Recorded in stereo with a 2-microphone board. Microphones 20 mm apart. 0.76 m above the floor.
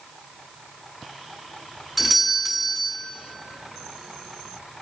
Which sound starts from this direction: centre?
A doorbell, at 2.0 s.